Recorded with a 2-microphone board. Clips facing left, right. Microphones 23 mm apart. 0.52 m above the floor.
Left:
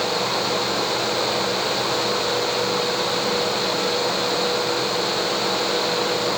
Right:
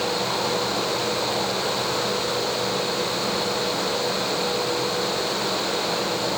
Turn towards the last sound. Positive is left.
No sound to turn to.